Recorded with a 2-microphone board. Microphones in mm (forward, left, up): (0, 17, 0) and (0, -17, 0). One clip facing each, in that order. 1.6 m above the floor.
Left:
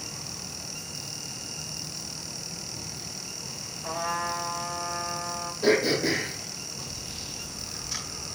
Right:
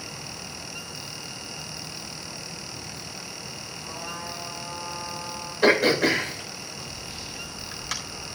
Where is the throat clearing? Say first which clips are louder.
Right 4 dB; 70° right (ahead or behind), 4 m.